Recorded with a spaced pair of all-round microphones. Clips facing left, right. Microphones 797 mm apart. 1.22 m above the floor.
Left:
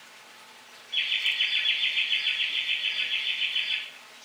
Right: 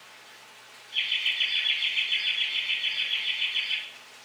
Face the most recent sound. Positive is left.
turn(degrees=-10)  # may be behind; listen again after turning